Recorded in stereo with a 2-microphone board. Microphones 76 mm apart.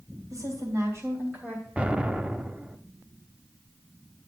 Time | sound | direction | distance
0.3 | a woman speaking | 45° right (ahead or behind) | 3 m
1.8 | an explosion | 15° right (ahead or behind) | 0.6 m